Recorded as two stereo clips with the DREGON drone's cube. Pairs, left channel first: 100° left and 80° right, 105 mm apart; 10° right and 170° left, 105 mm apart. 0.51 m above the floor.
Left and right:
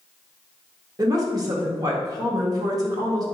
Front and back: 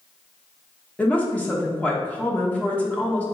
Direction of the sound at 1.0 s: 80° right.